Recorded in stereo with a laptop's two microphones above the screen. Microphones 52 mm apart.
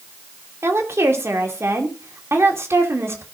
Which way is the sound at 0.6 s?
60° right (ahead or behind).